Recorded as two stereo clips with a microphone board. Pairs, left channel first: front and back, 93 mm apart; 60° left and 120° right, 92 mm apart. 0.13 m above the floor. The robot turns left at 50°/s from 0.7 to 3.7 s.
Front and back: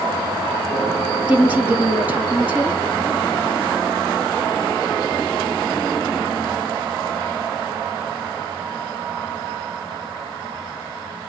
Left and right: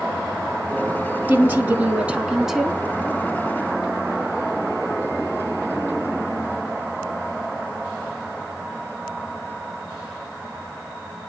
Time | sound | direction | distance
1.3 | a woman speaking | 135° right | 1.0 m